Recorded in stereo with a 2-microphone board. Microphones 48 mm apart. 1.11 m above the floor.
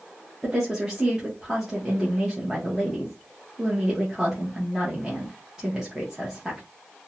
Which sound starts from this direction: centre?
A woman speaking, at 0.4 s.